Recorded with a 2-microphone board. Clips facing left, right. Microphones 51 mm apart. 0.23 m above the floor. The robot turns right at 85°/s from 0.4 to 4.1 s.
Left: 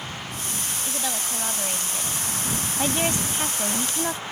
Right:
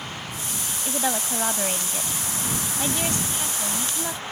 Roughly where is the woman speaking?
Right.